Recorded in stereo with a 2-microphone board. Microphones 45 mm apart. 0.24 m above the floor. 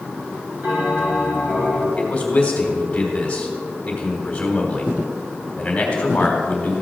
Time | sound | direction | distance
0.6 | a bell | 40° right (ahead or behind) | 4 m
2.0 | a man speaking | 25° left (ahead or behind) | 1.4 m